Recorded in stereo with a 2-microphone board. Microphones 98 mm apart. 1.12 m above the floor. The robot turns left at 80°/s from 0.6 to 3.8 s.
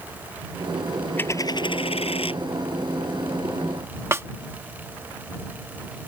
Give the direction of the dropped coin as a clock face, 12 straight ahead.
7 o'clock.